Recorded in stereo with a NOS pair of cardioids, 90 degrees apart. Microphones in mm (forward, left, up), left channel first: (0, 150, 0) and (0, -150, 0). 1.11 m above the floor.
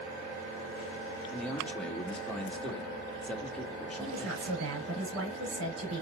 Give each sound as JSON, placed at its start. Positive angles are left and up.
{"t": 1.3, "sound": "a man speaking", "azimuth_deg": 5, "distance_m": 1.9}
{"t": 4.0, "sound": "a woman speaking", "azimuth_deg": -60, "distance_m": 4.0}